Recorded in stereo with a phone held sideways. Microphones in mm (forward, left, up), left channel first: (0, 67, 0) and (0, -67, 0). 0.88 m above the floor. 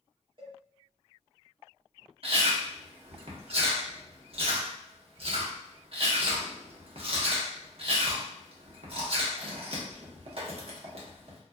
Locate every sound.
0.4 s a cowbell: 40° right (ahead or behind), 1.1 m
2.2 s chewing: 55° right (ahead or behind), 0.7 m